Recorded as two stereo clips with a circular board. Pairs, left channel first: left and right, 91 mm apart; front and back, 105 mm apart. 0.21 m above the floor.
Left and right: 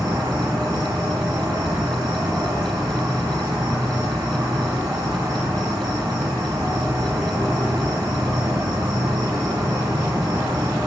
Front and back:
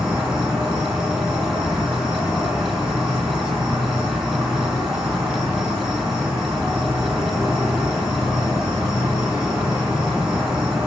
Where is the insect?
100° right, 1.6 m.